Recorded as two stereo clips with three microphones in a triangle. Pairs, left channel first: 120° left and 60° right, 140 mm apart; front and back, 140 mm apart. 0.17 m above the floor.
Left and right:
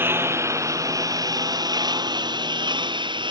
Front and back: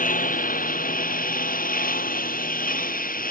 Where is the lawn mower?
15° left; by 3.3 s 5° right.